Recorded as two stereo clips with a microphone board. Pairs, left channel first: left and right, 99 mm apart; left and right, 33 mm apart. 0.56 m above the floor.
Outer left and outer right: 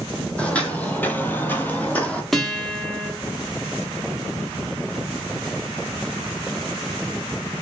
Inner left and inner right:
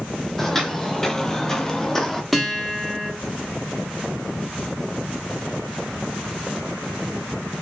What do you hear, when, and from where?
0.4 s footsteps: 10° left (ahead or behind), 0.9 m
2.3 s a guitar: 5° left (ahead or behind), 0.8 m